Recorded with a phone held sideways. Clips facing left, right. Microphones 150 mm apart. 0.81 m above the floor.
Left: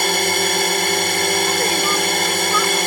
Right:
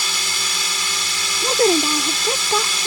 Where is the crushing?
I don't hear crushing.